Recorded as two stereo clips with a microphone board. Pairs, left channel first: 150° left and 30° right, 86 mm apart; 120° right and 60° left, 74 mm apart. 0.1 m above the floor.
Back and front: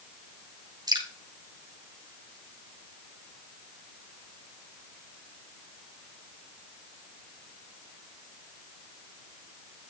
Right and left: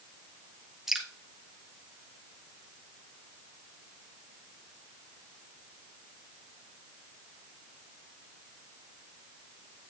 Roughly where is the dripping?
Ahead right.